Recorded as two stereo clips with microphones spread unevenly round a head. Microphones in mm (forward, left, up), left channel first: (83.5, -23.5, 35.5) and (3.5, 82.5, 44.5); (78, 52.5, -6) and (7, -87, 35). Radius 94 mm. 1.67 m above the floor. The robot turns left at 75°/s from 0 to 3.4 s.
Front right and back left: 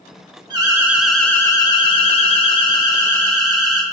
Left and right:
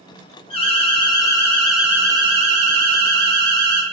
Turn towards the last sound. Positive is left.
turn(degrees=-140)